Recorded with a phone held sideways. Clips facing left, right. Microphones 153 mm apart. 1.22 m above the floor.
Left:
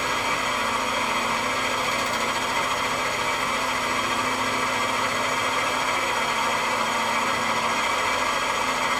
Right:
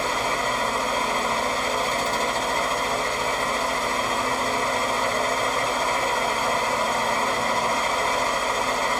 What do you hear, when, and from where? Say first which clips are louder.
0.0 s a fan: right 2 dB; 35° right (ahead or behind), 1.1 m